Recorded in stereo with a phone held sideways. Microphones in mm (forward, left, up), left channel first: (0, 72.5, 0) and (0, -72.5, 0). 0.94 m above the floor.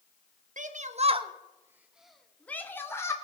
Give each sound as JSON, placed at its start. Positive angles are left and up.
{"t": 0.6, "sound": "a shout", "side_deg": -60, "distance_m": 1.1}